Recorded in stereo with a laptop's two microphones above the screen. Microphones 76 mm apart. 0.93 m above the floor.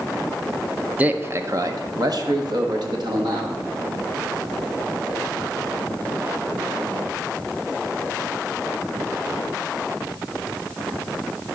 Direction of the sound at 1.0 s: 20° right (ahead or behind).